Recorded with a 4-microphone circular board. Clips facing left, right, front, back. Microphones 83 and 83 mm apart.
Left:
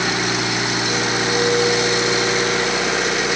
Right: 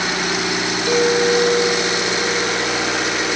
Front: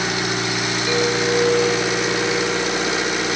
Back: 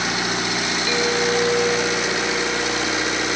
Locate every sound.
0.9 s a clink: 75° right, 2 m